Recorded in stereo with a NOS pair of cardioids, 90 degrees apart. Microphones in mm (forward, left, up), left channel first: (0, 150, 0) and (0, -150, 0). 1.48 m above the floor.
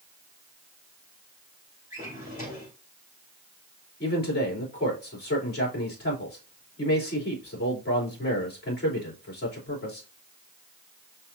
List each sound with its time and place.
1.9 s a drawer: 30° left, 3.5 m
4.0 s a man speaking: 35° left, 3.5 m